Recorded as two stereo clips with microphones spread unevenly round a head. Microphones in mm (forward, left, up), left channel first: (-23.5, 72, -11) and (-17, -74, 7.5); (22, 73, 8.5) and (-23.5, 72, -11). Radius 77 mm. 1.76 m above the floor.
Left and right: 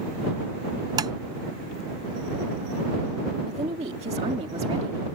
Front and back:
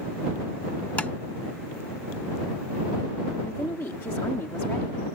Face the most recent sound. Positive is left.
turn(degrees=-35)